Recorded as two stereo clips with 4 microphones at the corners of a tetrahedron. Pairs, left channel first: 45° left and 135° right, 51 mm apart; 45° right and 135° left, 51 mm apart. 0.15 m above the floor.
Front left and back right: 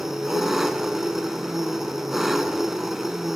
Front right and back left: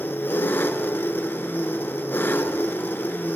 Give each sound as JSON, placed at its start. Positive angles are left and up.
{"t": 0.0, "sound": "an engine running", "azimuth_deg": -55, "distance_m": 0.7}